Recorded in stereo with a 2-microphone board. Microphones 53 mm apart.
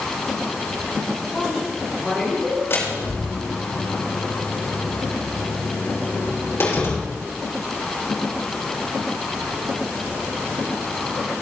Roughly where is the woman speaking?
Centre.